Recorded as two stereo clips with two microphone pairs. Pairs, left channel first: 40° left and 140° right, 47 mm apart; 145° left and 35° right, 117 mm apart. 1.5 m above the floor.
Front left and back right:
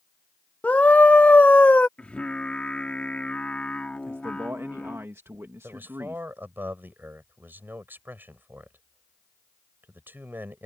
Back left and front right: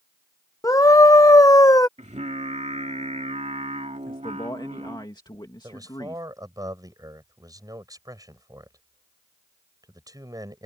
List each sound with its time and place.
0.6 s a scream: 90° left
2.0 s singing: 20° right
4.1 s a man speaking: 165° right
5.6 s a man speaking: 95° right